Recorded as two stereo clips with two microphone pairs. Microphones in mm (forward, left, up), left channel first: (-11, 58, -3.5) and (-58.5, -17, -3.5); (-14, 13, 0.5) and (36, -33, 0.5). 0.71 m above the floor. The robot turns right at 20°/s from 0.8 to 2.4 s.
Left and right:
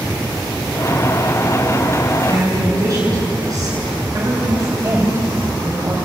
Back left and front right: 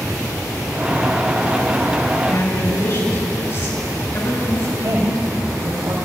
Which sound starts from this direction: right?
A woman speaking, at 4.8 s.